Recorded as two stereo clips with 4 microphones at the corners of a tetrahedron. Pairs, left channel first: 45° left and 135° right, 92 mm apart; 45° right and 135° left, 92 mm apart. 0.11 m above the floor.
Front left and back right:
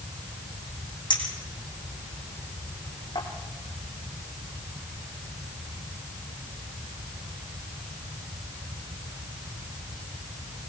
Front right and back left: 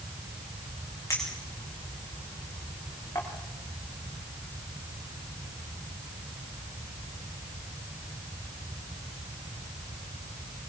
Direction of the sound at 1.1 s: 15° left.